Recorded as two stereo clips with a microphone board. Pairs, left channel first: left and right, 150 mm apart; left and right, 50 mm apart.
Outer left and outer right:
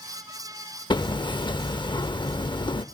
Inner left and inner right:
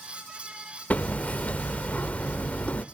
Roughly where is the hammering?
Left.